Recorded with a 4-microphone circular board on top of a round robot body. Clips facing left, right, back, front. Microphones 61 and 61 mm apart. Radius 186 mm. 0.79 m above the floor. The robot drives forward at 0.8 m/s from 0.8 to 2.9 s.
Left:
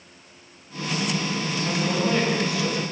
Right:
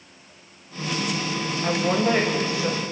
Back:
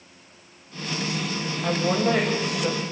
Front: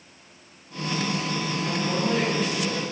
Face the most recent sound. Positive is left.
turn(degrees=-145)